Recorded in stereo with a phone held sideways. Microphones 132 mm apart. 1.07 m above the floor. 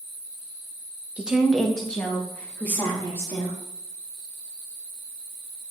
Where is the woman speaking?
10° right (ahead or behind), 1.1 m; by 3.6 s 20° left (ahead or behind), 2.5 m.